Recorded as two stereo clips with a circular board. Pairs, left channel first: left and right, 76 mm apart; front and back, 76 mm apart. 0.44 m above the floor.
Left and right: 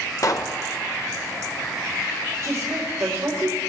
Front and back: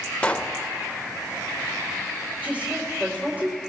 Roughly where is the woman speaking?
Behind right.